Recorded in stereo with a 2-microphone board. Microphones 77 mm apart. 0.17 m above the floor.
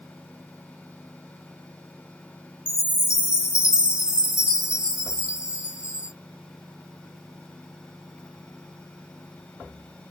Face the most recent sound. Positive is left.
turn(degrees=-10)  # may be behind; listen again after turning